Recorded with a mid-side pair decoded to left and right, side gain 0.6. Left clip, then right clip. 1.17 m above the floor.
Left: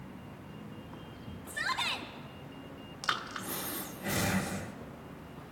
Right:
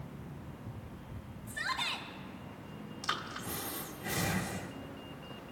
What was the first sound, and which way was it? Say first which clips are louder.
A shout: left 2 dB; 30° left.